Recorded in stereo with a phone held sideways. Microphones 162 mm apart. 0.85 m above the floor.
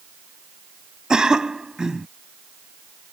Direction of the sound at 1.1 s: 5° right (ahead or behind).